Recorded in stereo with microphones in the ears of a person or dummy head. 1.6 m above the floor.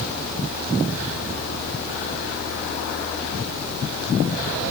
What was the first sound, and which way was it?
Only background noise.